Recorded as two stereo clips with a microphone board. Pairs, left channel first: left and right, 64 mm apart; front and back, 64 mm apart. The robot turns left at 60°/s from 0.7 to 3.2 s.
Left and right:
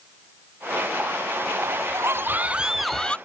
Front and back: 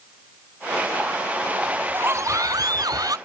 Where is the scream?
110° right; by 3.2 s 160° left.